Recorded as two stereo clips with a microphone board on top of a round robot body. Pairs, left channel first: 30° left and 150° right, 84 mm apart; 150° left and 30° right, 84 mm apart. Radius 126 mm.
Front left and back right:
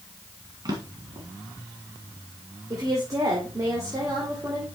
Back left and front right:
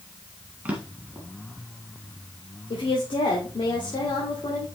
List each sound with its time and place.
0.7 s a drawer: 105° right, 1.8 m
2.7 s a woman speaking: 160° left, 2.5 m